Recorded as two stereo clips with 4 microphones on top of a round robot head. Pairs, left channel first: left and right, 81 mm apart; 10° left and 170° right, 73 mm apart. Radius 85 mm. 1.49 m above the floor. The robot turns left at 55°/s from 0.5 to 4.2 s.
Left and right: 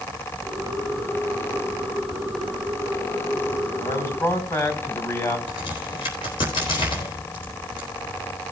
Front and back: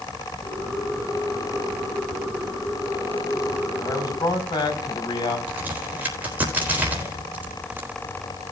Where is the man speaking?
55° left, 4 m; by 5.4 s 35° left, 4 m.